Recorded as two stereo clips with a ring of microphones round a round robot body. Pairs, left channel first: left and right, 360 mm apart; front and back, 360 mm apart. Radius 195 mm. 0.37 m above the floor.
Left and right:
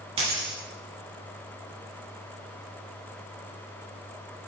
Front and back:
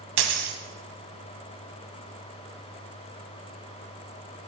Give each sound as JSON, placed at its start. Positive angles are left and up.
{"t": 0.2, "sound": "a dropped coin", "azimuth_deg": -165, "distance_m": 0.8}